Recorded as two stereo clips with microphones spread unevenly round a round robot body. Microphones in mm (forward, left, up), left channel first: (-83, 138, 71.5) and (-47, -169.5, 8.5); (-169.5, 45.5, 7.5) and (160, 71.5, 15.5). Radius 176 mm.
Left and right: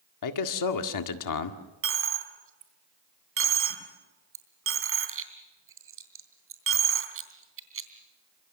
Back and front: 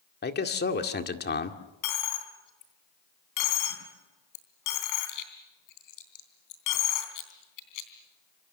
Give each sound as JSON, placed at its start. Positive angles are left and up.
{"t": 0.2, "sound": "a man speaking", "azimuth_deg": 125, "distance_m": 2.0}
{"t": 1.8, "sound": "a dropped coin", "azimuth_deg": -135, "distance_m": 3.0}